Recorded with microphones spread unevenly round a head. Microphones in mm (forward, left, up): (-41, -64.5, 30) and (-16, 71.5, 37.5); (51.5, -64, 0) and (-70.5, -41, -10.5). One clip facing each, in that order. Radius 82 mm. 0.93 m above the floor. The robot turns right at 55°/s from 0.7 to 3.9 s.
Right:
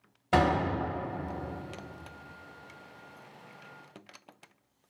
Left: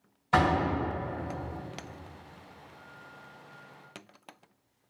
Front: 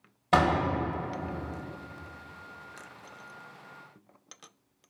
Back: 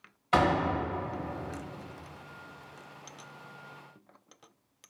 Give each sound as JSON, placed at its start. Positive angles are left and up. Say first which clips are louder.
{"t": 0.3, "sound": "a door slam", "louder": "even, front 1 dB", "azimuth_deg": -60, "distance_m": 1.3}